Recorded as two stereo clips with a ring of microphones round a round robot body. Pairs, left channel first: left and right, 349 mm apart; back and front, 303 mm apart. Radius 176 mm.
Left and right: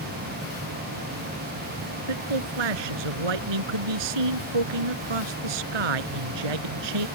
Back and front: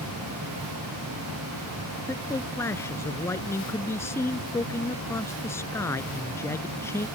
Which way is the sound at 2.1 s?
95° right.